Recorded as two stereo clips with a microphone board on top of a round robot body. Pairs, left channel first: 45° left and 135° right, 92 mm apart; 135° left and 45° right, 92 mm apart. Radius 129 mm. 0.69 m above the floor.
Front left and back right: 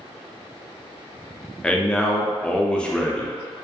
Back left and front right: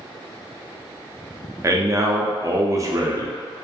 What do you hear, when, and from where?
1.6 s a man speaking: 30° right, 0.6 m